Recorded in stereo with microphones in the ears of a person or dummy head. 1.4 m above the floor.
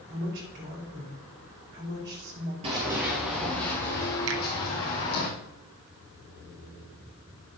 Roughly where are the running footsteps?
Right.